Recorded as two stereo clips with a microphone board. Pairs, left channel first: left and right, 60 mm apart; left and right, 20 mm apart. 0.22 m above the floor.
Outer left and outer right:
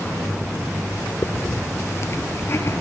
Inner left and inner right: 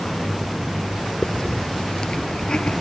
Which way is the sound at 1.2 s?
45° left (ahead or behind).